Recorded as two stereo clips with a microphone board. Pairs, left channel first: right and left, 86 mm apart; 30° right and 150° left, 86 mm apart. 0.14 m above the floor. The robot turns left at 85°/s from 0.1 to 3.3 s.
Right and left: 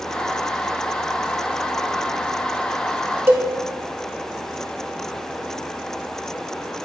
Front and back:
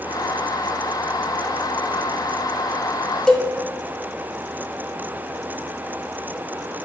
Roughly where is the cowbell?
Ahead left.